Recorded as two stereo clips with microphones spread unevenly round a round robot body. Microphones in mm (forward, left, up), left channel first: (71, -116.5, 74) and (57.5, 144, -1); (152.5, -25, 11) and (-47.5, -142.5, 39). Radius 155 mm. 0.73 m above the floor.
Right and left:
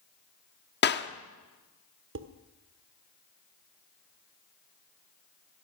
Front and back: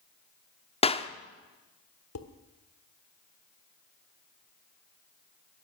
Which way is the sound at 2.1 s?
55° left.